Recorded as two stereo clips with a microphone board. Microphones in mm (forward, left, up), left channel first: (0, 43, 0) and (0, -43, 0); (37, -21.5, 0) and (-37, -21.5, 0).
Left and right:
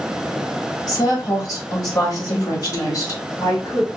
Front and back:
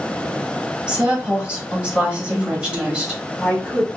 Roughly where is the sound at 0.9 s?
Left.